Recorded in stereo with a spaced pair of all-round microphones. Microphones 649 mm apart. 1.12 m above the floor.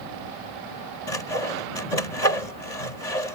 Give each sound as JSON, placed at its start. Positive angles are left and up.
{"t": 1.1, "sound": "sawing", "side_deg": 85}